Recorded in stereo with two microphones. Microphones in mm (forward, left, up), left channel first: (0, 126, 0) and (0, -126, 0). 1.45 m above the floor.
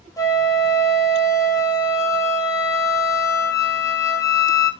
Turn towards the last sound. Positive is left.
turn(degrees=15)  # may be behind; listen again after turning